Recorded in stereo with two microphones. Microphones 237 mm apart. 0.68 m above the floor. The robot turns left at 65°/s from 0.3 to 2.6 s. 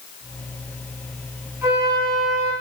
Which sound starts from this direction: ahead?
A flute, at 1.6 s.